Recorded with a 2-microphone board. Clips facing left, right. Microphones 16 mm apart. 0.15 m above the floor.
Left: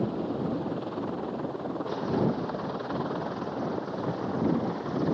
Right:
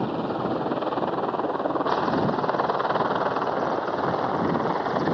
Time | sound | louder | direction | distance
0.0 | a helicopter | right 4 dB | 75° right (ahead or behind) | ?